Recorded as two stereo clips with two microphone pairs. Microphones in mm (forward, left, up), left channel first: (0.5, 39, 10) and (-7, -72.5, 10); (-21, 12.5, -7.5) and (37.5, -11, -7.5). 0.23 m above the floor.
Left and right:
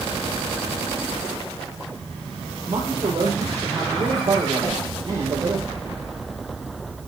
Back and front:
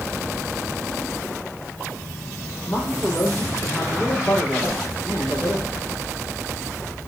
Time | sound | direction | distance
2.7 | a man speaking | 150° right | 8 m
4.6 | a whoosh | 140° left | 3.5 m